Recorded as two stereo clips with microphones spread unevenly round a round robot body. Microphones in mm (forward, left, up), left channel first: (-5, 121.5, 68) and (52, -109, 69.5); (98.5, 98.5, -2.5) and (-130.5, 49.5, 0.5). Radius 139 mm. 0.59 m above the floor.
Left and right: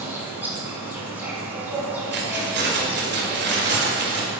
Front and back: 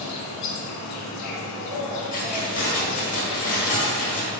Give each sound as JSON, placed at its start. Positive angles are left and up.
{"t": 0.0, "sound": "an insect", "azimuth_deg": 5, "distance_m": 1.4}
{"t": 2.1, "sound": "keys jangling", "azimuth_deg": -30, "distance_m": 1.5}